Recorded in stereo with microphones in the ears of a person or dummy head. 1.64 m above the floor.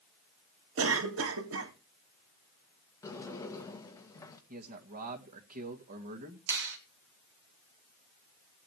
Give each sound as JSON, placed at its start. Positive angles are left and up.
{"t": 0.8, "sound": "a cough", "side_deg": -80, "distance_m": 2.0}
{"t": 3.0, "sound": "a sliding door", "side_deg": 20, "distance_m": 2.0}
{"t": 4.5, "sound": "a man speaking", "side_deg": -45, "distance_m": 1.8}
{"t": 6.5, "sound": "a finger snap", "side_deg": -60, "distance_m": 1.9}